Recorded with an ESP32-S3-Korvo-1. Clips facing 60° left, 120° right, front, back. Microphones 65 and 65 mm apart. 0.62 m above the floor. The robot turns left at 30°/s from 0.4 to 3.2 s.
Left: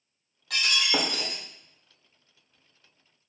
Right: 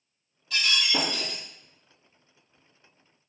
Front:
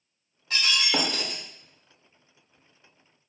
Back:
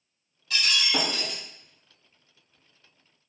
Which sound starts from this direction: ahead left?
Breaking glass, at 0.5 s.